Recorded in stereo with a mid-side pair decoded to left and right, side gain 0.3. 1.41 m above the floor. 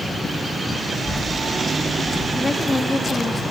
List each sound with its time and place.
0.9 s a child speaking: 35° left, 1.9 m; by 2.2 s 25° left, 1.3 m
2.4 s a woman speaking: 30° left, 1.9 m